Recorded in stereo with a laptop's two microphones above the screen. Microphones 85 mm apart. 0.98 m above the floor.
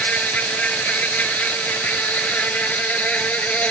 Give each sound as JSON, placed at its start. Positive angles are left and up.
{"t": 0.0, "sound": "an insect", "side_deg": 15}